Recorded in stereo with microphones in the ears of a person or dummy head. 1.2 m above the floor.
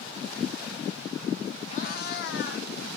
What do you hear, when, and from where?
1.7 s a cat meowing: 35° left (ahead or behind), 0.9 m; by 2.7 s 60° left (ahead or behind), 1.6 m